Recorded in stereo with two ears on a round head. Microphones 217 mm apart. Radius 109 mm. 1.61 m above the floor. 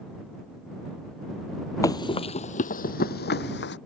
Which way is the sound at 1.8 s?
15° left (ahead or behind).